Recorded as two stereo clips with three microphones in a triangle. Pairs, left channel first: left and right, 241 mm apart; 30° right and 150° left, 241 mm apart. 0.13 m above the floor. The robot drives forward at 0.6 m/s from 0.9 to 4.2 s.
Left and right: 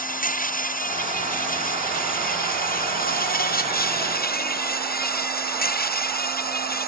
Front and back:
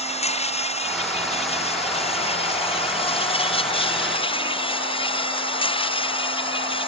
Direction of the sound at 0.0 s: 35° left.